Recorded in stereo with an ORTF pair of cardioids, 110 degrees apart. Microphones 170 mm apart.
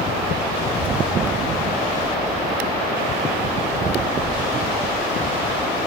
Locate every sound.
0.6 s a child speaking: 15° left, 1.2 m; by 5.8 s 10° right, 5 m